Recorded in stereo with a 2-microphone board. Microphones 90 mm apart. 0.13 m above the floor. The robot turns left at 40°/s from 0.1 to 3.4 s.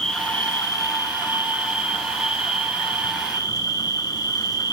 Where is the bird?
No bird in this recording.